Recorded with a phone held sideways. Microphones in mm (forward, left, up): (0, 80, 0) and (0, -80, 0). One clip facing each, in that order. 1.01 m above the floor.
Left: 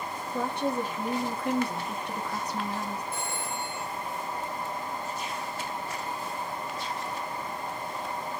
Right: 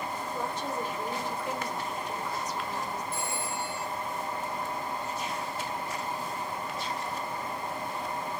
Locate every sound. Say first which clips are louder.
0.3 s a woman speaking: left 7 dB; 70° left (ahead or behind), 1.8 m
3.1 s a phone ringing: even; 80° left, 4 m